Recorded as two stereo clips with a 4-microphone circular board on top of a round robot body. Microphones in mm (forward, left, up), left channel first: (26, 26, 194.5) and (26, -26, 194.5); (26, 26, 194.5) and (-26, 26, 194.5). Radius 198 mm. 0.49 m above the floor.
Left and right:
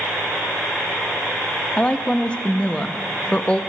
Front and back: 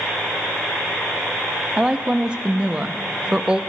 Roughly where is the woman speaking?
Behind left.